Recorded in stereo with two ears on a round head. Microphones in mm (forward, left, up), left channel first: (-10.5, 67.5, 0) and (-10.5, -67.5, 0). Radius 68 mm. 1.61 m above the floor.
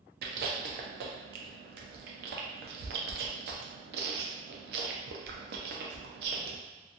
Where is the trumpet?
I don't hear a trumpet.